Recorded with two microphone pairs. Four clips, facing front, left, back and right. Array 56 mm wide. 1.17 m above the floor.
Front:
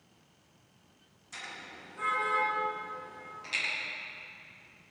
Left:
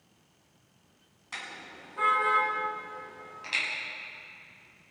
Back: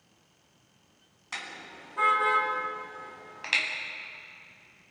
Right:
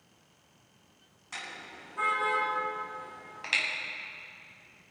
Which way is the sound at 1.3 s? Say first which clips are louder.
Left 1 dB, back 4 dB; 170° left.